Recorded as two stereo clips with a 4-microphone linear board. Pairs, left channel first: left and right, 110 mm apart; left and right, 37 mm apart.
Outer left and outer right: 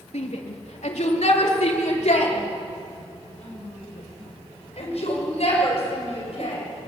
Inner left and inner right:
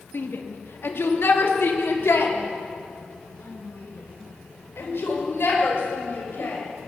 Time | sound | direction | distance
0.1 | a shout | 85° left | 3 m